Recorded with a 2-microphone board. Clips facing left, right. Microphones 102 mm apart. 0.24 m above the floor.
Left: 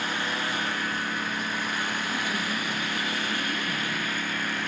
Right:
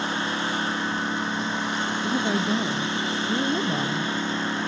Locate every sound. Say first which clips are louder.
0.0 s a lawn mower: right 3 dB; 25° right (ahead or behind)
2.0 s a woman speaking: right 6 dB; 50° right (ahead or behind)